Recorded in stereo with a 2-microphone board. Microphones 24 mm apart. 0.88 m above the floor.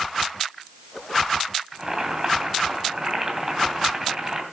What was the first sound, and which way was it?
Boiling, 20° right (ahead or behind).